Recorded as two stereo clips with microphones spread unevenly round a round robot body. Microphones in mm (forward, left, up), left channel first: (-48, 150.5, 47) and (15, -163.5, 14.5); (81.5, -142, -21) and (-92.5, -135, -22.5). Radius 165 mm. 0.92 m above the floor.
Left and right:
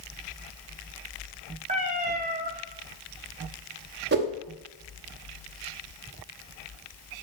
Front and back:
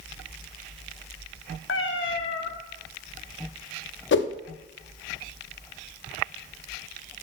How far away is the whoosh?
About 0.7 m.